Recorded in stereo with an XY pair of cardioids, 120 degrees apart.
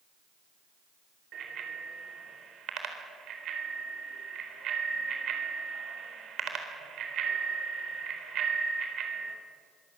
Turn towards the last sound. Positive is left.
turn(degrees=-60)